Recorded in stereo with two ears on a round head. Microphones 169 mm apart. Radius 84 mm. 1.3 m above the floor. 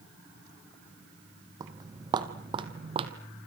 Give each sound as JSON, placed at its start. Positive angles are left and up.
{"t": 1.6, "sound": "footsteps", "side_deg": -20, "distance_m": 2.5}